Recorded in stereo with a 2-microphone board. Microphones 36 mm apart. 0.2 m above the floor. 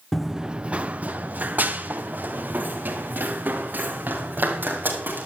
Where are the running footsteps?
5° left (ahead or behind), 0.7 m; by 5.3 s 65° right (ahead or behind), 7 m.